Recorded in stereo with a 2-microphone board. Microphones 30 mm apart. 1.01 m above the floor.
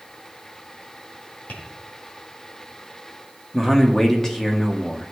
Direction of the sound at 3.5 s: 15° left (ahead or behind).